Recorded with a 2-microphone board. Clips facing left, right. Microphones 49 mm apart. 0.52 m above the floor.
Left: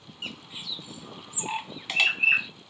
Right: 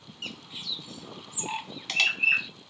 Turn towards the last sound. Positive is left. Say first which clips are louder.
# left 1 dB
turn(degrees=10)  # may be behind; listen again after turning